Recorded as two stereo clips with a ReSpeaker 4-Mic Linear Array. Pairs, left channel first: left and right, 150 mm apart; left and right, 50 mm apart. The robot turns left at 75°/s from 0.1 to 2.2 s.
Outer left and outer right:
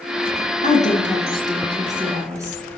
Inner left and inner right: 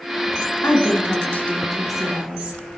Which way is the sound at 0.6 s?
90° left.